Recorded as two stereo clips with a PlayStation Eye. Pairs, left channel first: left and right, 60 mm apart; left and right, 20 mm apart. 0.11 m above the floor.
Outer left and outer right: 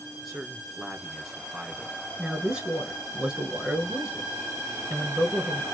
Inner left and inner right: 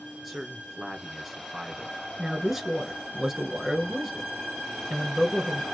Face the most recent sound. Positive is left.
turn(degrees=-15)  # may be behind; listen again after turning